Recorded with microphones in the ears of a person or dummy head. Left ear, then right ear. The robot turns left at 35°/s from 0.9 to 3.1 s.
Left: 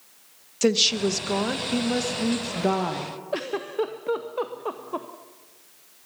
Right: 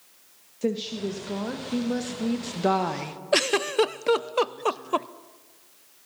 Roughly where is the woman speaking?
Ahead left.